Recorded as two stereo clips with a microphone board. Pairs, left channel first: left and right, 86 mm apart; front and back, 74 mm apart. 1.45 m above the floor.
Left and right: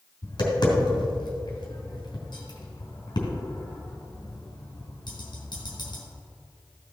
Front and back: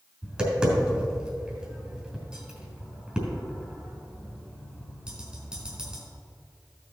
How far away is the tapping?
About 2.5 m.